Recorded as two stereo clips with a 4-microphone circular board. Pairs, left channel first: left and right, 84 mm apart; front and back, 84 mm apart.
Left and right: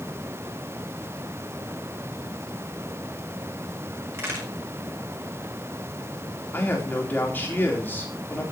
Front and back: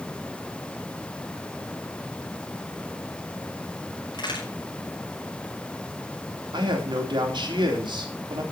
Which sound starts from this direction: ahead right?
A crack, at 4.1 s.